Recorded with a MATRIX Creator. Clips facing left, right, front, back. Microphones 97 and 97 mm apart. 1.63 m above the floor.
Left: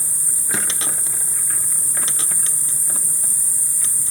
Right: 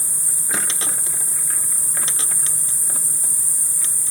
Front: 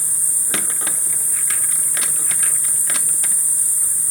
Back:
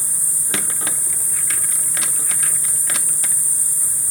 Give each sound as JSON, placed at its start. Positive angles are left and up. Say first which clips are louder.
{"t": 0.0, "sound": "an insect", "louder": "even, back 1 dB", "azimuth_deg": -105, "distance_m": 1.1}